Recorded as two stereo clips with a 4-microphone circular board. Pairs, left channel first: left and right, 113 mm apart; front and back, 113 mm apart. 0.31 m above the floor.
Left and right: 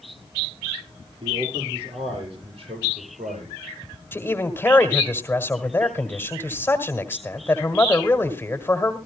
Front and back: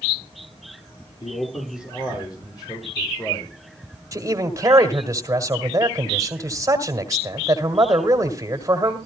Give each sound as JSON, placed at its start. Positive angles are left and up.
{"t": 1.2, "sound": "a man speaking", "azimuth_deg": -50, "distance_m": 8.5}
{"t": 4.1, "sound": "a man speaking", "azimuth_deg": 145, "distance_m": 1.8}